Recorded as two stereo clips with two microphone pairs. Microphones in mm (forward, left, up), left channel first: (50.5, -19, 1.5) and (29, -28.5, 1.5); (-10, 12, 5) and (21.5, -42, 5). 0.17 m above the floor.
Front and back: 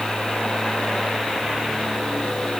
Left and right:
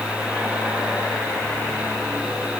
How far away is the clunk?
I don't hear a clunk.